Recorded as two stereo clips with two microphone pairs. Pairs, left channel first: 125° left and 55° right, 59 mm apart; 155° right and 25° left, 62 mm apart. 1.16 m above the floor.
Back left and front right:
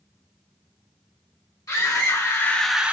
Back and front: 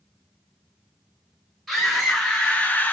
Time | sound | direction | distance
1.7 | a scream | 115° left | 1.1 m